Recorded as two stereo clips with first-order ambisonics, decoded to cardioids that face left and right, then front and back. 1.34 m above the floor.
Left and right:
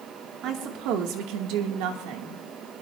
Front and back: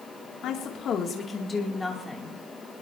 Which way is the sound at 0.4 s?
45° right.